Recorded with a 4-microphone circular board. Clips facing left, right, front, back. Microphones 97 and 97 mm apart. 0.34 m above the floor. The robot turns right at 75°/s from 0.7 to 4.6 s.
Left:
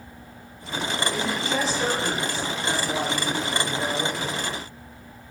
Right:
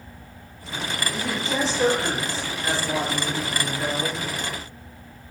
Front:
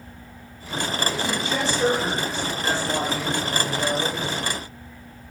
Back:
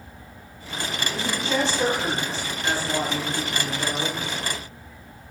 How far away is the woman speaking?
About 1.4 m.